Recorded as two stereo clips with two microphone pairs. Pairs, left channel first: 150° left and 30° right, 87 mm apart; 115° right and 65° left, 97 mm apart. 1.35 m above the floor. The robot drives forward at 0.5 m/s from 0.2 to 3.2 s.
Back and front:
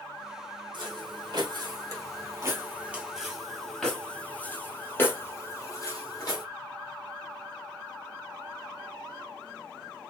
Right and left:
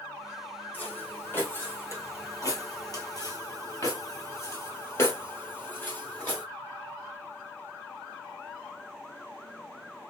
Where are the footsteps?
45° right, 3 m; by 6.5 s 175° left, 2 m.